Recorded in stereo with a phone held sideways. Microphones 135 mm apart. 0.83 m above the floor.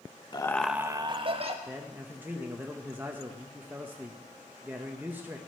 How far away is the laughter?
About 0.6 m.